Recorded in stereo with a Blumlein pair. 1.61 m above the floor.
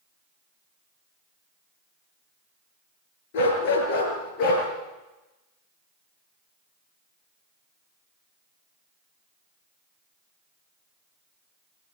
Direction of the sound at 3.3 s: 55° left.